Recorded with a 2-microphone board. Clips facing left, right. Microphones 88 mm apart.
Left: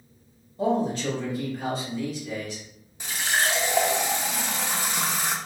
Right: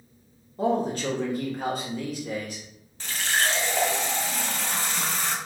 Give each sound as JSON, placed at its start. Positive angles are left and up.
{"t": 0.6, "sound": "a man speaking", "side_deg": -45, "distance_m": 1.5}
{"t": 3.0, "sound": "a running tap", "side_deg": 15, "distance_m": 0.7}